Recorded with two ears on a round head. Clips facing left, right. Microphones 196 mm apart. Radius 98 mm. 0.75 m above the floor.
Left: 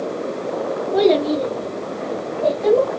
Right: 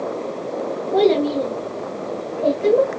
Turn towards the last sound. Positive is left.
turn(degrees=-15)  # may be behind; listen again after turning